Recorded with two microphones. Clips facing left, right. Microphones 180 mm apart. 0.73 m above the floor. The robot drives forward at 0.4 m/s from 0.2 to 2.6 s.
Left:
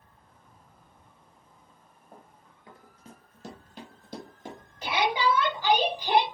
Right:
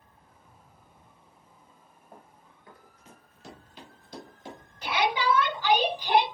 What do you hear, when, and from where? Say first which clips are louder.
2.1 s running footsteps: even; centre (ahead or behind), 0.9 m; by 4.6 s 50° left (ahead or behind), 1.5 m
4.8 s a shout: left 1 dB; 25° left (ahead or behind), 2.5 m